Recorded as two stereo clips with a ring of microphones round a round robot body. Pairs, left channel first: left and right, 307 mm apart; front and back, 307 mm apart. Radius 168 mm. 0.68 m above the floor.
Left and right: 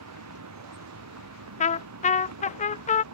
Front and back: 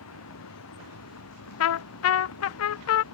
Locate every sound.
0.0 s a vehicle: 55° right
1.6 s a trumpet: 25° left